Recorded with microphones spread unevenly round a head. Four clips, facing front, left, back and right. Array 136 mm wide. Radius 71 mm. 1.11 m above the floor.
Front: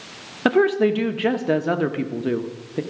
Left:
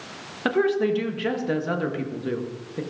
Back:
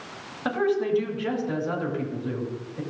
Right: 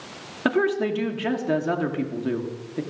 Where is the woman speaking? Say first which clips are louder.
Left 1 dB, front 7 dB; 5° right, 1.4 m.